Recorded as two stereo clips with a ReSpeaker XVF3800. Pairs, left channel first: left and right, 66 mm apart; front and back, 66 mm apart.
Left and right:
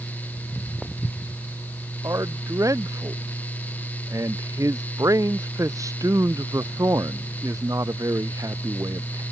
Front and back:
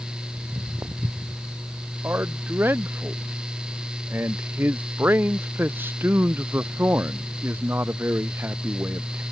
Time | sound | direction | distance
0.4 | footsteps | 165° right | ?
2.0 | a man speaking | 120° right | ?